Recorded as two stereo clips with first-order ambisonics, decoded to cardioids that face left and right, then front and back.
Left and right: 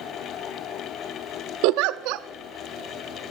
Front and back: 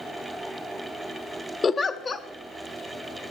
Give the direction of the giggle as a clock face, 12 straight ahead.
2 o'clock.